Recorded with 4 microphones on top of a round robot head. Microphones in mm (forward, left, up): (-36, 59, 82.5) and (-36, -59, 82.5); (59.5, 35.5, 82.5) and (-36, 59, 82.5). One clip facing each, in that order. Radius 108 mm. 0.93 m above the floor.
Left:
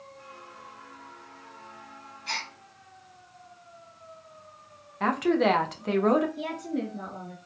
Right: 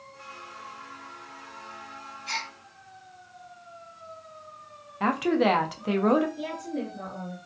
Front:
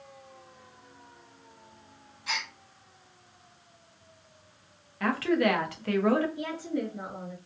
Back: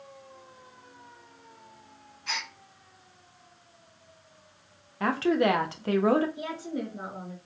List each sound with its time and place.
2.3 s a gasp: 70° left, 0.9 m
5.0 s a woman speaking: 175° right, 0.5 m
6.4 s a woman speaking: 100° left, 1.7 m